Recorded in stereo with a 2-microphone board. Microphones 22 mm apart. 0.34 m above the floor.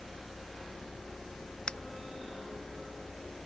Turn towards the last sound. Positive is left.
turn(degrees=45)  # may be behind; listen again after turning